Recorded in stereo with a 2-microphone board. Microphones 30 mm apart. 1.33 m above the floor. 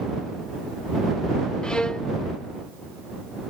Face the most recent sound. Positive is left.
turn(degrees=30)  # may be behind; listen again after turning